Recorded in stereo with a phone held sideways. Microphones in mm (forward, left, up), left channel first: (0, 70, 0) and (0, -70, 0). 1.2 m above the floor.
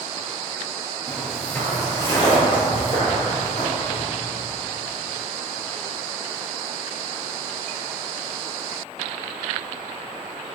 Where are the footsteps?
5° right (ahead or behind), 1.3 m; by 4.0 s 50° left (ahead or behind), 3.5 m.